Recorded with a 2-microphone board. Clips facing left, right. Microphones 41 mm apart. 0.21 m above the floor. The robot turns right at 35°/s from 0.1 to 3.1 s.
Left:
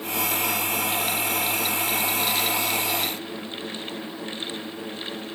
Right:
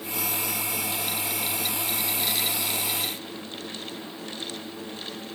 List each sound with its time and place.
Only background noise.